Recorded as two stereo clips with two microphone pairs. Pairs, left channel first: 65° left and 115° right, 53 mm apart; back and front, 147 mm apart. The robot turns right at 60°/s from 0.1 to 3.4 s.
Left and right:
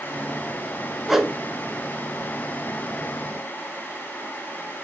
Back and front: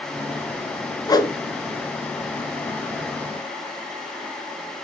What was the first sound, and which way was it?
A whoosh, 155° left.